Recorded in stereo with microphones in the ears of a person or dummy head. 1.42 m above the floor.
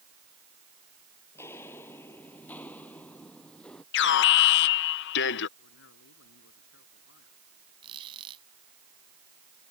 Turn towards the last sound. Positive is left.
turn(degrees=-25)  # may be behind; listen again after turning